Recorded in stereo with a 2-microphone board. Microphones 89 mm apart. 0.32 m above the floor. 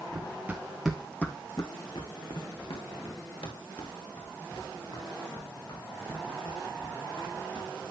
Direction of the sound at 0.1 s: 25° right (ahead or behind).